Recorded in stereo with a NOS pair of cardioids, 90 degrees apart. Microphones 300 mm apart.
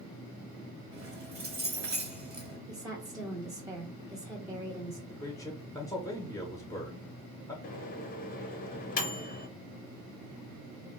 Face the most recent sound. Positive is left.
turn(degrees=30)